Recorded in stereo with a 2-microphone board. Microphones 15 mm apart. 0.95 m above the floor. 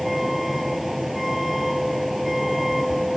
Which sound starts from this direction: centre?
A vehicle, at 0.0 s.